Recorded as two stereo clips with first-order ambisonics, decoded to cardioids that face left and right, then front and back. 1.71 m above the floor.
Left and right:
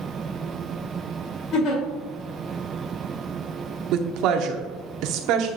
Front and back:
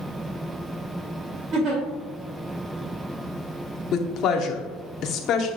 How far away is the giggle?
About 2.5 m.